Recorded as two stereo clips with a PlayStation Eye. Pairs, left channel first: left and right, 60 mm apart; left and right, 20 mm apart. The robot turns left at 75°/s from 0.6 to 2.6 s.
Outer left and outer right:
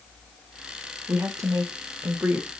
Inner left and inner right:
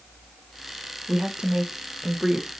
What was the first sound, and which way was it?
A woman speaking, 55° right.